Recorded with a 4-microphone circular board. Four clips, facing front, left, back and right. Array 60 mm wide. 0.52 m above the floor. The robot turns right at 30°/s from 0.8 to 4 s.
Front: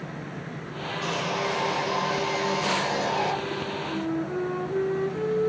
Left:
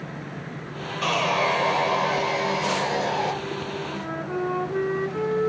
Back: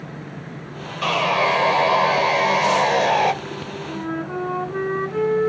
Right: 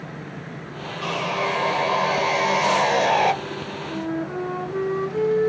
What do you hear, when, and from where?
1.0 s sawing: 160° left, 1.1 m; by 3.3 s 130° right, 1.1 m
3.9 s a flute: 165° left, 4.5 m